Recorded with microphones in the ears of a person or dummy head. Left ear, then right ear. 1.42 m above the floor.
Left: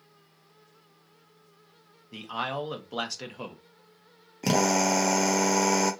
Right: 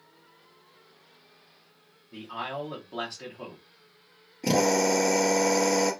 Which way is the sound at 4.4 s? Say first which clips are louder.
Right 1 dB; 45° left (ahead or behind).